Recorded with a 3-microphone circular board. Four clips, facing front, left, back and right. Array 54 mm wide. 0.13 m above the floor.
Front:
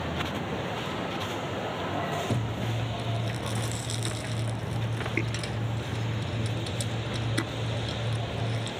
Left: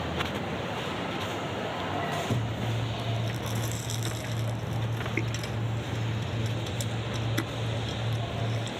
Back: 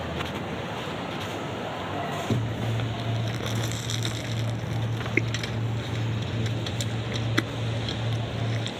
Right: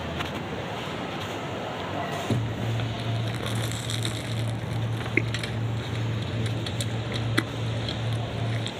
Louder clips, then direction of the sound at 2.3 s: Right 2 dB, back 2 dB; 130° right.